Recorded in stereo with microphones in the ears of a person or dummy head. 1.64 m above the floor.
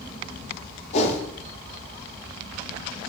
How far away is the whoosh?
About 0.5 m.